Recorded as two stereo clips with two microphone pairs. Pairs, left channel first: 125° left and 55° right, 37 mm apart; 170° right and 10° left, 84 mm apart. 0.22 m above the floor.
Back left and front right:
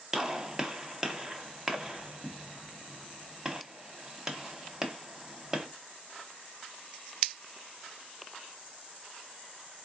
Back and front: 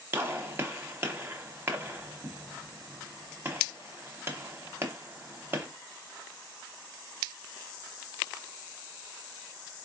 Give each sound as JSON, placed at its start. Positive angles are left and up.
{"t": 0.1, "sound": "a gunshot", "azimuth_deg": 10, "distance_m": 0.8}